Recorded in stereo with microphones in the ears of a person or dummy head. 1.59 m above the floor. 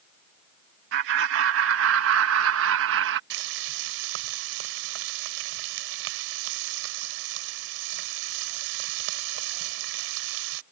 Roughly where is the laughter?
Right.